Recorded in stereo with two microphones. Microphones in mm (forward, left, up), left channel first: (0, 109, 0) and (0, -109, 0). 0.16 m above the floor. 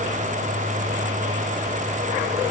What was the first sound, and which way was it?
Only background noise.